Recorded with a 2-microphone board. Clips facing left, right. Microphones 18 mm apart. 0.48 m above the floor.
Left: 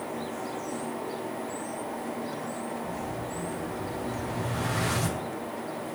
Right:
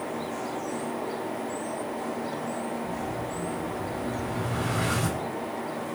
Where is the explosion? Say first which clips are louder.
Right 2 dB; 70° left (ahead or behind), 1.7 m.